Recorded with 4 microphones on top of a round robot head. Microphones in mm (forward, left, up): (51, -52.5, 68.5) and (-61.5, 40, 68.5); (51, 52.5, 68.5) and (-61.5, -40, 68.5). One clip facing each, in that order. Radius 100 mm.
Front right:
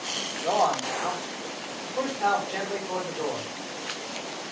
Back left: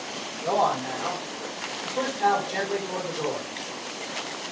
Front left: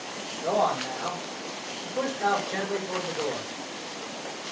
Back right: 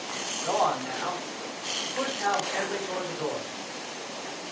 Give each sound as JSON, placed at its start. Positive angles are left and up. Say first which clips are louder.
{"t": 0.4, "sound": "a man speaking", "louder": "even, front left 1 dB", "azimuth_deg": 75, "distance_m": 3.0}